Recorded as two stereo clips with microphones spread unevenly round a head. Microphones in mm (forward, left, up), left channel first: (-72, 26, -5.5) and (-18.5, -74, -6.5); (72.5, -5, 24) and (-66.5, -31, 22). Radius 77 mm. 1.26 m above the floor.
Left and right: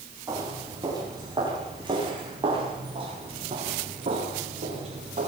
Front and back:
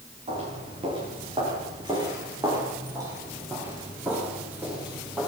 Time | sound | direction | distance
0.3 | footsteps | 120° right | 9.5 m